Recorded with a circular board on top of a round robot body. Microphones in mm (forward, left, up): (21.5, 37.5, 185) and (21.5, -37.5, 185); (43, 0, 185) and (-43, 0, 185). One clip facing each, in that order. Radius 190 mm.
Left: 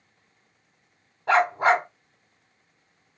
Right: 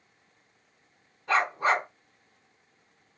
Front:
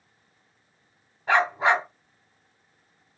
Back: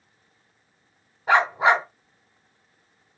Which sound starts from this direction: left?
A dog barking, at 1.3 s.